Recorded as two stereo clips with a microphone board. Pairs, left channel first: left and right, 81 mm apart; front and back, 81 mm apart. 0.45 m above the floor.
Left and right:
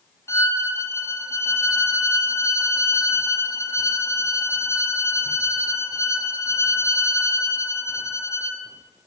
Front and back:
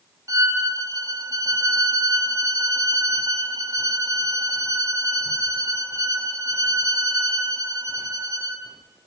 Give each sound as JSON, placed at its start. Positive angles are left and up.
{"t": 0.3, "sound": "a violin", "azimuth_deg": 140, "distance_m": 3.0}